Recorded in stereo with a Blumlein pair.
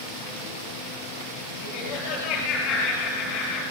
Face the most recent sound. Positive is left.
turn(degrees=35)